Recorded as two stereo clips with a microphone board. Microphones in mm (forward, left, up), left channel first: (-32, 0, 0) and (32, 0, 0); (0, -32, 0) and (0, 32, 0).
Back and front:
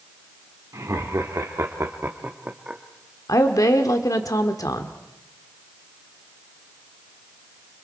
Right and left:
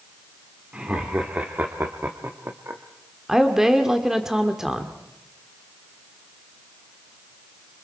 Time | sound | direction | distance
0.7 | laughter | 20° left | 1.9 m
3.3 | a woman speaking | 175° left | 1.7 m